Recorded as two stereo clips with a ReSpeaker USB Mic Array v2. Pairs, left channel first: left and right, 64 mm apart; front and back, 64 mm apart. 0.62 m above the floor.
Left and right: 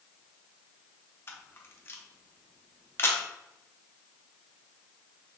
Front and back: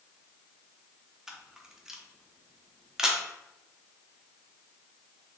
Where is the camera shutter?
100° left, 0.6 m.